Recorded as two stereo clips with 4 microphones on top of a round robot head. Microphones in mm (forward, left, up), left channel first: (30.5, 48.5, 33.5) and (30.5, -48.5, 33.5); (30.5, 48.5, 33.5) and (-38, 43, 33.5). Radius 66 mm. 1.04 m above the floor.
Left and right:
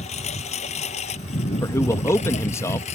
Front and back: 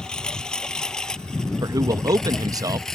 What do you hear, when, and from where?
0.0 s a lawn mower: 85° left; by 3.0 s 90° left
1.6 s a man speaking: 155° left